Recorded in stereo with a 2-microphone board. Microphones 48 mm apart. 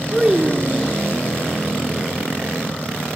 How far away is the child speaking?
About 0.6 m.